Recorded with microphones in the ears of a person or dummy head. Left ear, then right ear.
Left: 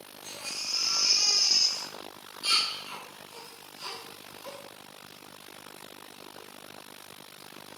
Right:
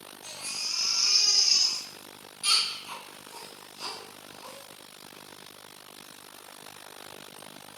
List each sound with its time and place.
0.2 s a baby crying: 30° right (ahead or behind), 1.1 m